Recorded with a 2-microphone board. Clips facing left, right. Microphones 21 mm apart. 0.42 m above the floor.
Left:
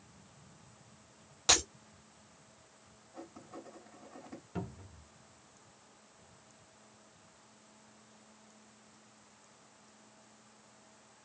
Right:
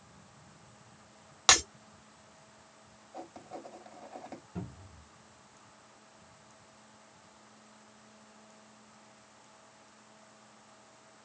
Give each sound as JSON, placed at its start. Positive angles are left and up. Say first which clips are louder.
{"t": 1.5, "sound": "breaking glass", "louder": "right 4 dB", "side_deg": -55, "distance_m": 1.8}
{"t": 3.1, "sound": "writing", "louder": "right 4 dB", "side_deg": -65, "distance_m": 2.0}
{"t": 4.5, "sound": "a cupboard door", "louder": "left 5 dB", "side_deg": 40, "distance_m": 0.9}